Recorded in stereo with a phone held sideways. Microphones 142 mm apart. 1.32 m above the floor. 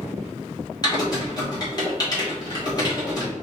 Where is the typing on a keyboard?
30° left (ahead or behind), 1.9 m.